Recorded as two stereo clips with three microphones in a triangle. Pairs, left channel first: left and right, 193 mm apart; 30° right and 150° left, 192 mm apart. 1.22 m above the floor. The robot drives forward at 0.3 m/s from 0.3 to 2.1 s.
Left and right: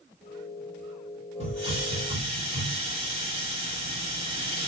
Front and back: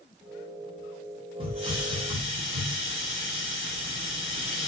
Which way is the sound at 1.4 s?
145° right.